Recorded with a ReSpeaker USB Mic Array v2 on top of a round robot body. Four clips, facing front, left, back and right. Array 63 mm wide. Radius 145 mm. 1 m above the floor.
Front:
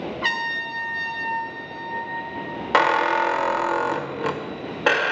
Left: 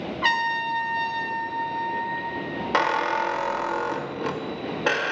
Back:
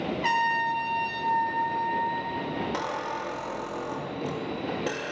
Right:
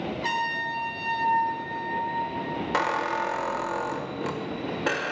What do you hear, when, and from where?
0.2 s a trumpet: 70° left, 0.6 m
2.7 s a squeak: 15° left, 0.5 m